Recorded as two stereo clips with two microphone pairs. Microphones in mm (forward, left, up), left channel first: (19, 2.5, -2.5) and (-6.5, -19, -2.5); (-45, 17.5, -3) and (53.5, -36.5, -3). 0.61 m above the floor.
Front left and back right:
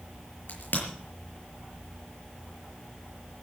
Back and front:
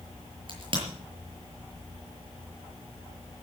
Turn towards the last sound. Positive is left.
turn(degrees=15)